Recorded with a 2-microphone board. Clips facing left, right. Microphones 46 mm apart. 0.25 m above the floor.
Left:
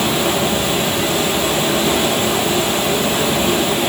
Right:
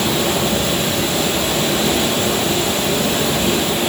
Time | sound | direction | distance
0.0 | running water | 10° left (ahead or behind) | 6 m